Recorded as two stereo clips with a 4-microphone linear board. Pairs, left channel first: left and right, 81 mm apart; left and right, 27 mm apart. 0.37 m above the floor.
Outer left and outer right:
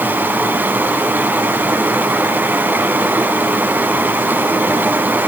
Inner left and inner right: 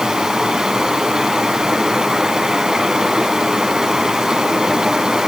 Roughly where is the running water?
Right.